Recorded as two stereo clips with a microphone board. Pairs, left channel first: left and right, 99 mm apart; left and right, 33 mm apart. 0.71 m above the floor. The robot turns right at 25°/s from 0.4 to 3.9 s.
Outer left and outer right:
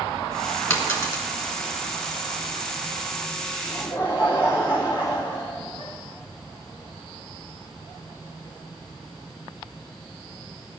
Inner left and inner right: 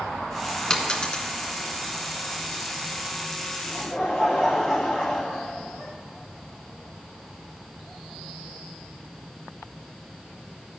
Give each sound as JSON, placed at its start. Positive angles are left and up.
{"t": 0.7, "sound": "a dropped coin", "side_deg": 30, "distance_m": 1.5}
{"t": 3.6, "sound": "laughter", "side_deg": -10, "distance_m": 2.5}